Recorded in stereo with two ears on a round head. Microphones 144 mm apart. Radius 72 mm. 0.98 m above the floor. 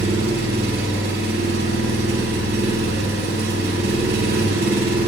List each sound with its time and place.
0.0 s an engine running: 70° right (ahead or behind), 2.5 m